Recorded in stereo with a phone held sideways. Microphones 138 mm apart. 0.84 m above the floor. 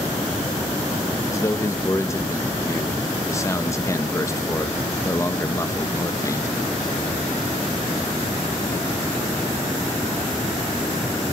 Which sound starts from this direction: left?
A man speaking, at 1.3 s.